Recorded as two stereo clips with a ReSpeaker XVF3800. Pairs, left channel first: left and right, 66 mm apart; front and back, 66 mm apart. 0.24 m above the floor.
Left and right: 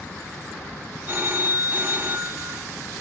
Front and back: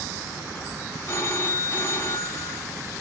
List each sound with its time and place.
1.1 s a phone ringing: 45° right, 1.5 m